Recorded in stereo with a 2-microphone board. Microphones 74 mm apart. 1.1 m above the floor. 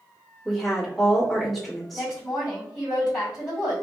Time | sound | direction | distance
0.5 | a woman speaking | 5° left (ahead or behind) | 1.3 m
1.9 | a woman speaking | centre (ahead or behind) | 1.8 m